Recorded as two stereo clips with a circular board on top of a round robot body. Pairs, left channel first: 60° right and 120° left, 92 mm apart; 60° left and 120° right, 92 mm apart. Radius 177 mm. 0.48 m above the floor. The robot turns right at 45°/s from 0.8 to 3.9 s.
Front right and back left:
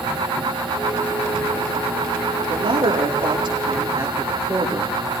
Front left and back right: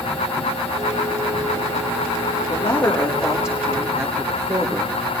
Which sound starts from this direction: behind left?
A man speaking, at 2.5 s.